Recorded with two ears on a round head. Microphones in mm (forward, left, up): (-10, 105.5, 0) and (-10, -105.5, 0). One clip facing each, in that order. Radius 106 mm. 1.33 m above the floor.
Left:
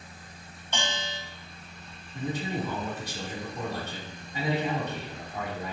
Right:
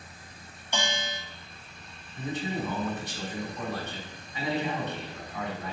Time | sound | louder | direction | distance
0.7 | a bell | right 1 dB | 10° right (ahead or behind) | 2.5 m
2.1 | a man speaking | left 1 dB | 35° left (ahead or behind) | 4 m